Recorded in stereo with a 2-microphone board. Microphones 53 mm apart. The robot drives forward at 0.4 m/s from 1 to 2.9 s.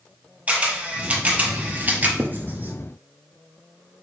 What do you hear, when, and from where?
0.5 s a camera shutter: 25° right (ahead or behind), 1.3 m; by 2.1 s 35° right (ahead or behind), 1.0 m
2.2 s writing: 40° right (ahead or behind), 0.5 m; by 2.7 s 35° right (ahead or behind), 0.6 m